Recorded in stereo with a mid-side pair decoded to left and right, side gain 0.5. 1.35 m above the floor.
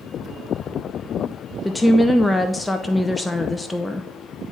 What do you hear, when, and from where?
1.6 s a woman speaking: 10° left, 0.5 m